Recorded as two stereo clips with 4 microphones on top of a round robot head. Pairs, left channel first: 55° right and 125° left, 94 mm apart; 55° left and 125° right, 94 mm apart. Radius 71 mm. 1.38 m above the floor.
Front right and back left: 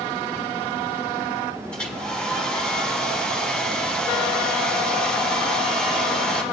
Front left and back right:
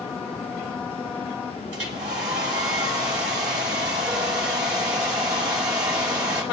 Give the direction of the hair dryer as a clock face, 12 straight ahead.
4 o'clock.